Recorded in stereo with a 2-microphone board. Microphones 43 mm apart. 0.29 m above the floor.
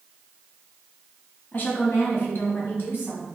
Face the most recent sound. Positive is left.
turn(degrees=65)  # may be behind; listen again after turning